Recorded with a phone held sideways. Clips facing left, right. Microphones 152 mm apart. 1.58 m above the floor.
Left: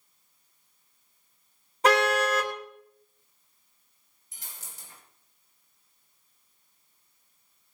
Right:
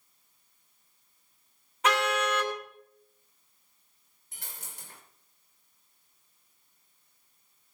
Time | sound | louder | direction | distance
1.8 | a car horn | left 5 dB | 35° left (ahead or behind) | 2.5 m
4.3 | a dropped coin | right 2 dB | 60° right (ahead or behind) | 3.5 m